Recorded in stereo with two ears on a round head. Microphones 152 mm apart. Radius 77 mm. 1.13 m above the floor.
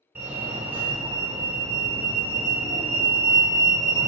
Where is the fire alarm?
15° right (ahead or behind), 1.5 m.